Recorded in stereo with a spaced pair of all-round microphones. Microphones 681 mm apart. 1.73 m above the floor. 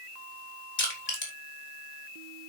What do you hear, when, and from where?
0.8 s crushing: 70° left (ahead or behind), 3.5 m